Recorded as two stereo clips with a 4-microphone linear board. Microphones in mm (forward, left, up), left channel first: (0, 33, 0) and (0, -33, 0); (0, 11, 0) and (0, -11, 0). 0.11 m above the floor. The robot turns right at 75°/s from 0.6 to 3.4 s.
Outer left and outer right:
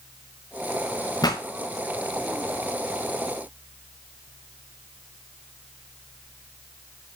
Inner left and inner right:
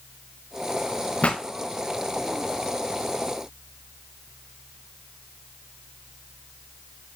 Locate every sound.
1.2 s a pop: 85° left, 2 m; by 1.4 s 75° left (ahead or behind), 2 m